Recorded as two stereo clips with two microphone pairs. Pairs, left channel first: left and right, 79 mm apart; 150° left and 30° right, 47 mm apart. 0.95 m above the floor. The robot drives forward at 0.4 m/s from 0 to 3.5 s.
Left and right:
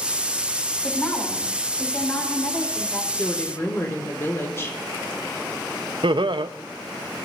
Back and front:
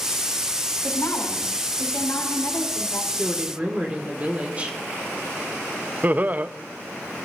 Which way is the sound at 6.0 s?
80° right.